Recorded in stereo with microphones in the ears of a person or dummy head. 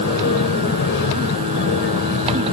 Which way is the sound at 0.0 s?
60° left (ahead or behind).